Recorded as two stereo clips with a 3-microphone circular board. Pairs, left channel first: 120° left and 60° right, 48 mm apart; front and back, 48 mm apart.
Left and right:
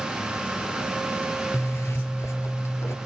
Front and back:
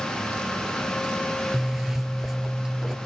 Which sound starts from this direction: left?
A zipper, at 1.5 s.